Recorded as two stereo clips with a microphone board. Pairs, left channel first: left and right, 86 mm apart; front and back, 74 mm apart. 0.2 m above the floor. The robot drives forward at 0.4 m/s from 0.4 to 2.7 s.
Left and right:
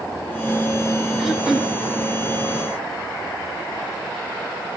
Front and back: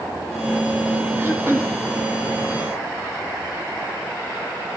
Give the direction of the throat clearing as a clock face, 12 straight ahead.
6 o'clock.